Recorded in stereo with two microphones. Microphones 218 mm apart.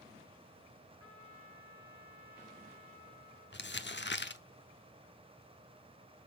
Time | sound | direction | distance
1.0 | a trumpet | 75° left (ahead or behind) | 5 m
3.5 | crumpling | 55° left (ahead or behind) | 0.8 m